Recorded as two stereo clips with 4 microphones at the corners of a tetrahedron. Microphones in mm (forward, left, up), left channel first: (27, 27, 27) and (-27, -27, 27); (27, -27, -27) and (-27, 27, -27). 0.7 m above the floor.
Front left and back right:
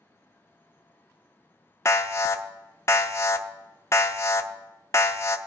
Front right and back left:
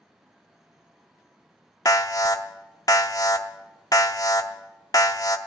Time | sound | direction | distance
1.9 | an alarm | 5° right | 0.5 m